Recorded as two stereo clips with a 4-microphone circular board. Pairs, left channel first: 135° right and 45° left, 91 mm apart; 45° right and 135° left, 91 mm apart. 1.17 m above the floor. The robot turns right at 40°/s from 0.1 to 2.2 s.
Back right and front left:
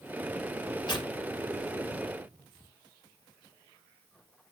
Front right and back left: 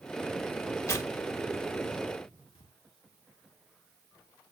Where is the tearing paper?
105° right, 1.9 m; by 2.7 s 50° right, 1.9 m.